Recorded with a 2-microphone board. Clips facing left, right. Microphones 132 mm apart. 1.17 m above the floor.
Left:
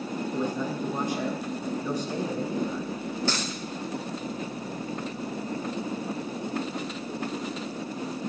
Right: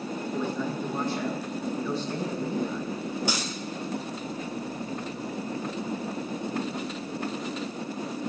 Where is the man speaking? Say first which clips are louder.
Even; 15° left (ahead or behind), 5.5 m.